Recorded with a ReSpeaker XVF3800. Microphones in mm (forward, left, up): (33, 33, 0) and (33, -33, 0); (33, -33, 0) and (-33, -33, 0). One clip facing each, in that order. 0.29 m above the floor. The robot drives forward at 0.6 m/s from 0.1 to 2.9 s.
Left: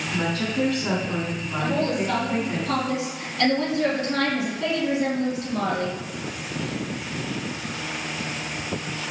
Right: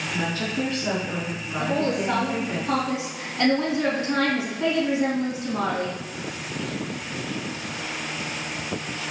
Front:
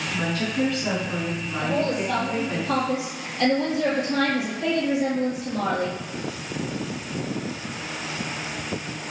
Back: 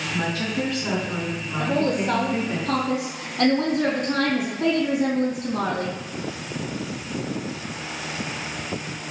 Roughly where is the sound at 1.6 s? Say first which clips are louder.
Even, back 2 dB; behind right.